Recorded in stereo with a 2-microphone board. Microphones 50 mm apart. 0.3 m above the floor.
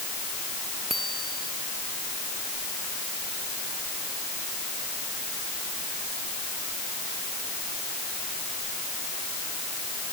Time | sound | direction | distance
0.9 | a bicycle bell | centre (ahead or behind) | ?